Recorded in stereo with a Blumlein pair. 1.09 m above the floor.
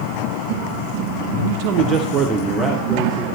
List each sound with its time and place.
1.4 s a man speaking: 65° right, 1.2 m; by 3.2 s 10° left, 3 m